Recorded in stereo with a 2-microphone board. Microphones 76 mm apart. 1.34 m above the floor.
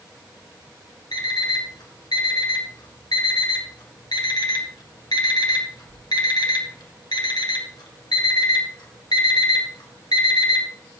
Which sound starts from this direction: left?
An alarm clock, at 1.1 s.